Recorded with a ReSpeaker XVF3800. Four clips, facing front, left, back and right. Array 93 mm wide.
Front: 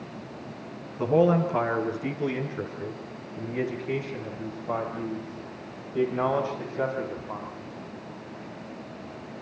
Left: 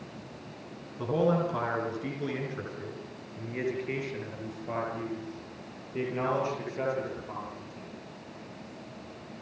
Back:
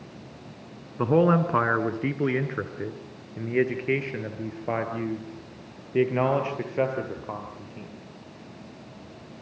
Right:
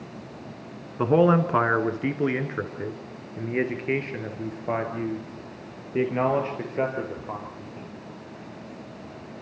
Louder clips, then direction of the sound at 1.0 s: Right 7 dB, back 1 dB; 125° right.